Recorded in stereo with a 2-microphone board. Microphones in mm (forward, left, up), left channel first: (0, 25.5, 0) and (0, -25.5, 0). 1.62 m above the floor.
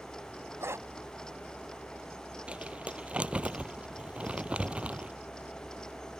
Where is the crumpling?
20° right (ahead or behind).